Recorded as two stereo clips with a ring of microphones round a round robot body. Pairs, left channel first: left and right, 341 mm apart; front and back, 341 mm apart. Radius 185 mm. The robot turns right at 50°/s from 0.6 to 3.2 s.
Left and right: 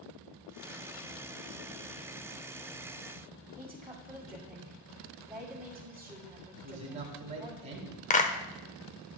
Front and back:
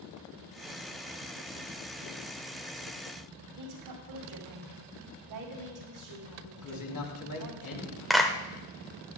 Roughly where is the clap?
Left.